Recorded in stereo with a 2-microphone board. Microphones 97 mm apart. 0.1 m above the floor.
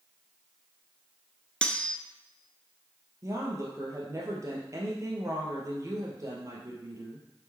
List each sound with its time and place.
1.6 s cutlery clinking: 10° left (ahead or behind), 0.7 m
3.2 s a woman speaking: 35° right (ahead or behind), 2.0 m